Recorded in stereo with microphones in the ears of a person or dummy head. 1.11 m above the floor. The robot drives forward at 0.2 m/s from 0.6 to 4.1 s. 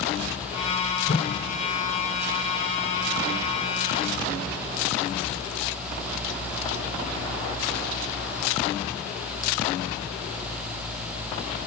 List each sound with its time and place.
1.1 s a whoosh: 30° left (ahead or behind), 1.7 m